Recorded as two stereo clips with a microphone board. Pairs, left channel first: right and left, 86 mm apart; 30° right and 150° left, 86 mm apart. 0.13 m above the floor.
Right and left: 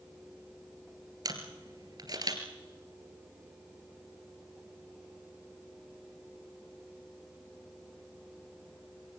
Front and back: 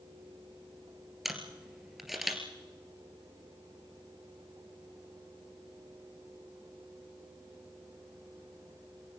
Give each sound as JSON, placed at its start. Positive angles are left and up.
{"t": 1.2, "sound": "a camera shutter", "azimuth_deg": 65, "distance_m": 2.5}